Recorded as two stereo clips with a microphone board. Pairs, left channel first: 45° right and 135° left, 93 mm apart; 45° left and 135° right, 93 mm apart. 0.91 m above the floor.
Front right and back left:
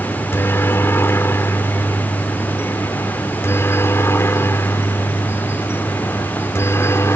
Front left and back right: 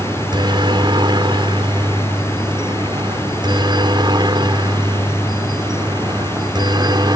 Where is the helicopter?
110° right; by 7.2 s 105° right.